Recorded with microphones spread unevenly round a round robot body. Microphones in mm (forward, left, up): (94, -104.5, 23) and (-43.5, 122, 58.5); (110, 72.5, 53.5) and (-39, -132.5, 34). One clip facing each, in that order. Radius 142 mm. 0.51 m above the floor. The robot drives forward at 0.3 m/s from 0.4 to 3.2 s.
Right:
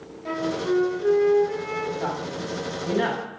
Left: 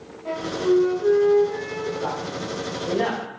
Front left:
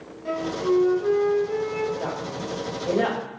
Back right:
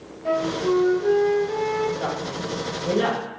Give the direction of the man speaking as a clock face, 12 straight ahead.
2 o'clock.